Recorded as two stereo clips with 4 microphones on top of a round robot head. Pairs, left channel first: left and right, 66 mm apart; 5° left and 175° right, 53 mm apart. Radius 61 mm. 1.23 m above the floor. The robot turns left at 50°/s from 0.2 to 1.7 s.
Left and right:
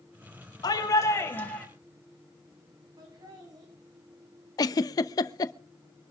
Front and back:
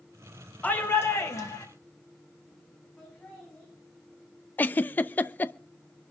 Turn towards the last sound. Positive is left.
turn(degrees=60)